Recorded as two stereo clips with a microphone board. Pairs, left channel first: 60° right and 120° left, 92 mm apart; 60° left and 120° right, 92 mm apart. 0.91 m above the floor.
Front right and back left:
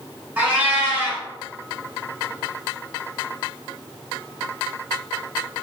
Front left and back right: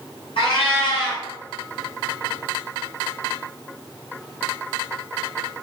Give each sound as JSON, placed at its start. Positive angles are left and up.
{"t": 0.4, "sound": "a cat meowing", "azimuth_deg": 50, "distance_m": 1.9}